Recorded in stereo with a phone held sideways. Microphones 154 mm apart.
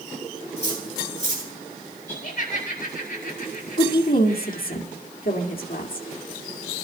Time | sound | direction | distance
0.6 | cutlery clinking | 45° left (ahead or behind) | 8.5 m
2.1 | laughter | 75° left (ahead or behind) | 8 m
3.8 | a woman speaking | 70° left (ahead or behind) | 2 m